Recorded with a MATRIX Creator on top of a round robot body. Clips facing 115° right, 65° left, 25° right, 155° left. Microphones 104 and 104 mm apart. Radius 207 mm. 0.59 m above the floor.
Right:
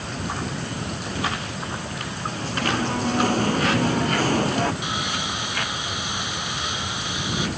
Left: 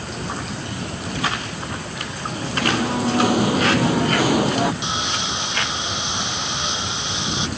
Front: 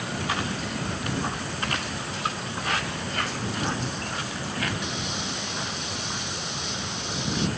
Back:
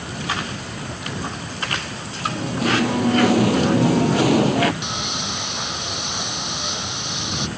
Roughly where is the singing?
Behind left.